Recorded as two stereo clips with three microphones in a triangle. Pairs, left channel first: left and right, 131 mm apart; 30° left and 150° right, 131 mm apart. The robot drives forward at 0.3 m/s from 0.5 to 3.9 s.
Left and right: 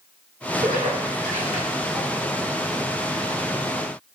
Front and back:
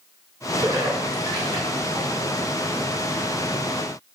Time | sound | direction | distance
0.6 | a splash | 85° right | 1.0 m